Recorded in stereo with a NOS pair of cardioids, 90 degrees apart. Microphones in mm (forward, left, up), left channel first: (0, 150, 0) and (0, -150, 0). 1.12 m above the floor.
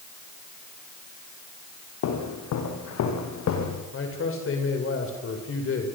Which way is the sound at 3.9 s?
45° left.